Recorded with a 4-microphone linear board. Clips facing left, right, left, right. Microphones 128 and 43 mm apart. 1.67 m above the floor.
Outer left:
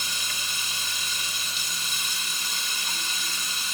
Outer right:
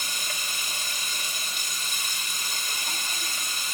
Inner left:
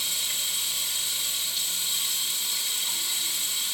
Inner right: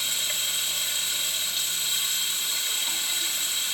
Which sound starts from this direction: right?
Running water, at 0.0 s.